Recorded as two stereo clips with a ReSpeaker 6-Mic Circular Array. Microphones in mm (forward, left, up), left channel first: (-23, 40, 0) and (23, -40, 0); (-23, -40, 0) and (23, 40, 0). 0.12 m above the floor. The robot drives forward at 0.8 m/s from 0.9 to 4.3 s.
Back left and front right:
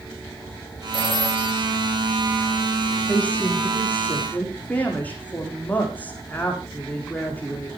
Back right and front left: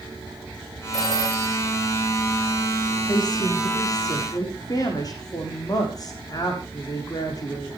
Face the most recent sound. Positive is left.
turn(degrees=-170)